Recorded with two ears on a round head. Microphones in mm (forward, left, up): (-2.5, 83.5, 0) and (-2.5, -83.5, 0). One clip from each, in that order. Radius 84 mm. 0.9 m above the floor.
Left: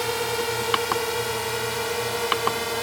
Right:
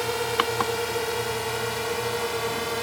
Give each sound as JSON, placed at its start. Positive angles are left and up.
{"t": 0.0, "sound": "a drone", "side_deg": 10}